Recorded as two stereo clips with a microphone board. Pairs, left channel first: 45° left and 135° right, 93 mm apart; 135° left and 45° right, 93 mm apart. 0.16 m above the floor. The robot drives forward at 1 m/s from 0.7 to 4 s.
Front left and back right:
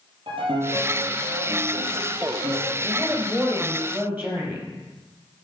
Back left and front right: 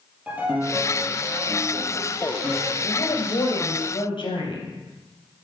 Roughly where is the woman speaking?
Behind left.